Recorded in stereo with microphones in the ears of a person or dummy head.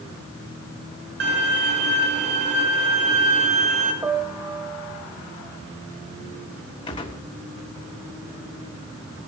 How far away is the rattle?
I don't hear a rattle.